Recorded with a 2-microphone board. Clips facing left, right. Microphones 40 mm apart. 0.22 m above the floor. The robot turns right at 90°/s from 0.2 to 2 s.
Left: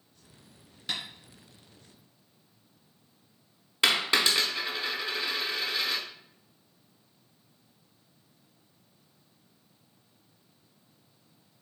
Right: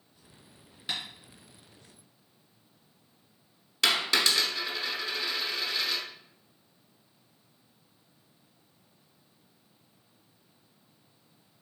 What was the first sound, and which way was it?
Tapping, 15° right (ahead or behind).